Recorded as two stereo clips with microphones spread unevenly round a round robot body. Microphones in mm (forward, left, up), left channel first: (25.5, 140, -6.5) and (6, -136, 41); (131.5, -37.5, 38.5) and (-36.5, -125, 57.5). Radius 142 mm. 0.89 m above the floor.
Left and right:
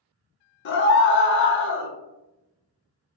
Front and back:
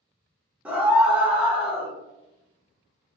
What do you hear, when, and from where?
0.7 s a scream: 120° left, 0.7 m